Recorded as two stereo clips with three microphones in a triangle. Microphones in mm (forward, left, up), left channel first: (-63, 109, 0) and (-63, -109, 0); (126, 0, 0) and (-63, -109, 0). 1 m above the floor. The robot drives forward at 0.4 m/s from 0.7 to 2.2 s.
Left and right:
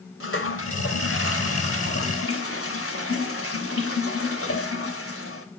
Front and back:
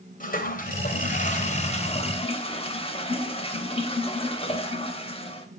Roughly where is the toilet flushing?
Left.